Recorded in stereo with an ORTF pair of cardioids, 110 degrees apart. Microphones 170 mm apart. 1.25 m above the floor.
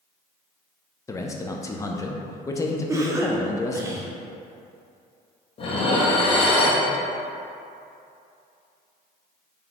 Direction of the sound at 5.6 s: 35° left.